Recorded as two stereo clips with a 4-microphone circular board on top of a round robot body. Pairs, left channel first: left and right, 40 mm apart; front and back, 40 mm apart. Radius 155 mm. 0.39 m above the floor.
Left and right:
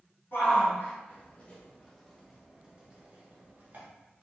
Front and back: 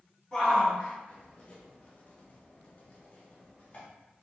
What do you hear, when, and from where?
0.3 s a shout: 75° left, 1.2 m; by 3.9 s 55° right, 1.3 m